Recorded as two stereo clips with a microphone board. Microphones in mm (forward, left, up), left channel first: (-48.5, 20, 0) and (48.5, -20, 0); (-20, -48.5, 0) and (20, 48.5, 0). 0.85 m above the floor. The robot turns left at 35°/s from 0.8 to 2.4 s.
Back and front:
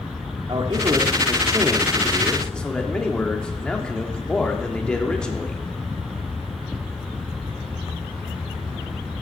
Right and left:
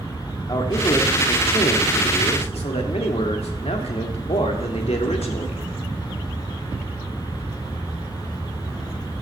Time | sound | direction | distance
0.5 | a man speaking | 65° right | 1.5 m